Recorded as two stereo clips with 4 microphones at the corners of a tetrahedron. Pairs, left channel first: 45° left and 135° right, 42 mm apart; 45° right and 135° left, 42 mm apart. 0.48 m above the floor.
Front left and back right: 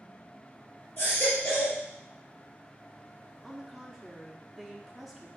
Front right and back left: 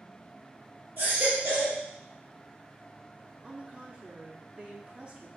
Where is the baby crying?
90° left, 3.5 m.